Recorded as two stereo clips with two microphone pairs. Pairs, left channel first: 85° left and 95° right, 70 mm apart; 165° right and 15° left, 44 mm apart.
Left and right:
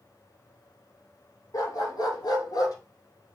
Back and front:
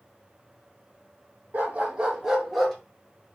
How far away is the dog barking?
About 1.3 m.